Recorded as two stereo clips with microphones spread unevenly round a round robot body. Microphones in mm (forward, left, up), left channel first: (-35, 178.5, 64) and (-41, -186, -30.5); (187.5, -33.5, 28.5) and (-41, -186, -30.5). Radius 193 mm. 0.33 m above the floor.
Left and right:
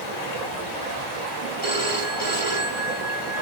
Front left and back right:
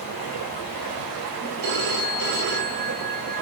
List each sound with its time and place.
0.0 s running water: 75° left, 1.5 m
1.6 s a phone ringing: 160° left, 1.4 m